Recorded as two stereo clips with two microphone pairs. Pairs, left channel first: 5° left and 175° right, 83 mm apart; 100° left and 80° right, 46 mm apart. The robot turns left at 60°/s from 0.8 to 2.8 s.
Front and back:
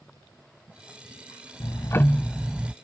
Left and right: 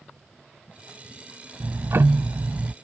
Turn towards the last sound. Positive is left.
turn(degrees=-110)